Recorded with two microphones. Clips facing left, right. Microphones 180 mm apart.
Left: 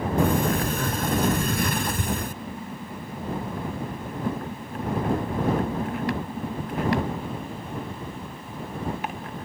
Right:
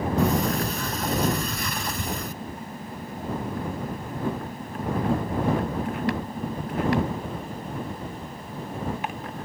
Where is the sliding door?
50° left (ahead or behind).